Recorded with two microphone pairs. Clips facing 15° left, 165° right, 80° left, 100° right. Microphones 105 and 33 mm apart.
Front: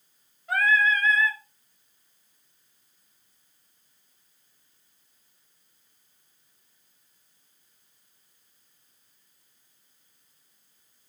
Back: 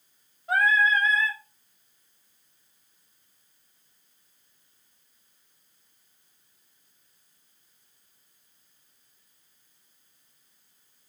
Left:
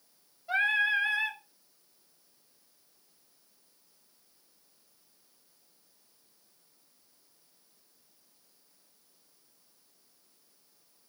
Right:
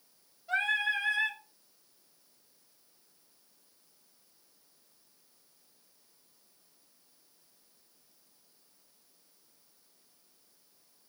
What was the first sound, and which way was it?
Singing, 145° left.